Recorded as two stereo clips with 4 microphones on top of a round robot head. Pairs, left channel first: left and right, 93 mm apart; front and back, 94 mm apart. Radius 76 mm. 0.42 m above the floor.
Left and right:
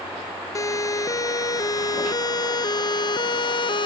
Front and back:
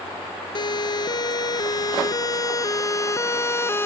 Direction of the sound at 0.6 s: 35° left.